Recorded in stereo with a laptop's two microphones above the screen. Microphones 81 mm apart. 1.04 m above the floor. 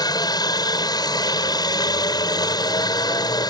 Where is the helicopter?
55° left (ahead or behind).